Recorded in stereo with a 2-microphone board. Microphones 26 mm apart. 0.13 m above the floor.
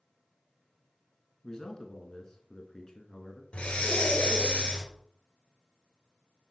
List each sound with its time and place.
1.4 s a man speaking: 20° left (ahead or behind), 1.2 m
3.5 s breathing: 50° left (ahead or behind), 1.4 m